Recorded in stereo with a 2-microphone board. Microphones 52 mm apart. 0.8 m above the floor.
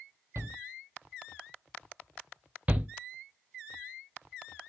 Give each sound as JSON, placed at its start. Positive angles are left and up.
{"t": 0.3, "sound": "a shout", "side_deg": -65, "distance_m": 1.0}
{"t": 2.7, "sound": "a shout", "side_deg": -30, "distance_m": 0.8}